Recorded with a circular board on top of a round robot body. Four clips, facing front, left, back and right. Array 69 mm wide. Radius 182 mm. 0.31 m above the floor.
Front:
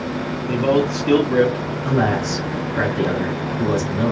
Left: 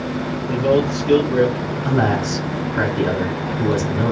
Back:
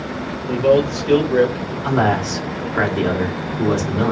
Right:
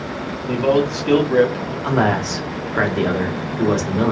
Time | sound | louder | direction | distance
0.5 | a man speaking | even, back 3 dB | 65° right | 2.5 m
1.8 | a man speaking | right 1 dB, back 2 dB | 120° right | 1.8 m